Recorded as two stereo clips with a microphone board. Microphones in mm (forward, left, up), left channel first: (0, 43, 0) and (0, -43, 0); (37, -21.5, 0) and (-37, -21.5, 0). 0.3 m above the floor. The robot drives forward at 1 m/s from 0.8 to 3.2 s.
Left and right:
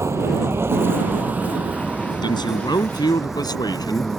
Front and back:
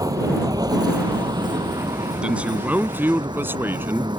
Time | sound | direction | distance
0.0 | a vehicle | 145° right | ?
2.2 | a man speaking | 105° left | ?